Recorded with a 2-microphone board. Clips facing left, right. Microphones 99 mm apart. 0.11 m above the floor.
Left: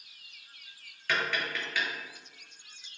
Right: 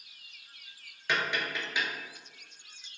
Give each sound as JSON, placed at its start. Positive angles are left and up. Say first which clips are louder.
{"t": 1.1, "sound": "tapping", "louder": "even", "side_deg": -20, "distance_m": 0.7}